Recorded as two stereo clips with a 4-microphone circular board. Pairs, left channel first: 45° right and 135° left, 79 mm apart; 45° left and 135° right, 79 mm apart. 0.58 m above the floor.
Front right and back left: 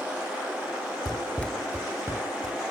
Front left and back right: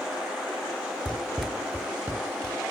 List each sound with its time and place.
1.1 s running footsteps: 25° right, 0.8 m; by 2.6 s 170° left, 1.7 m